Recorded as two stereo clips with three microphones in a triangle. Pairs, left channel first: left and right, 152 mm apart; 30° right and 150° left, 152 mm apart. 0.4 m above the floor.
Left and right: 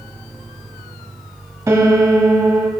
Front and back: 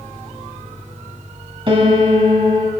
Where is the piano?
160° right, 1.6 m.